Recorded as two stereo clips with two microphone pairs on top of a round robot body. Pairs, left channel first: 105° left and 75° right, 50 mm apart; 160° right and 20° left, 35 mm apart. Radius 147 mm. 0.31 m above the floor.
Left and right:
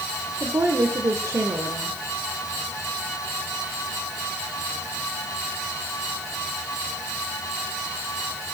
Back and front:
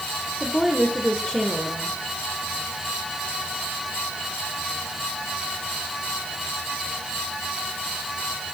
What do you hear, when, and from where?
0.4 s a woman speaking: 85° right, 1.6 m